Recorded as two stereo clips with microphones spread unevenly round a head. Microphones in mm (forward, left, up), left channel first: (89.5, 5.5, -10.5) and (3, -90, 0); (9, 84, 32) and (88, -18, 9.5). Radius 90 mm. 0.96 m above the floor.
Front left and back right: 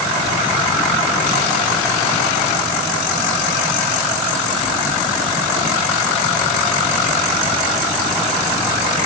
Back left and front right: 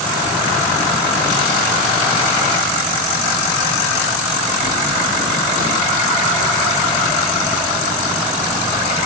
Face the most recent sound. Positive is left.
No sound to turn to.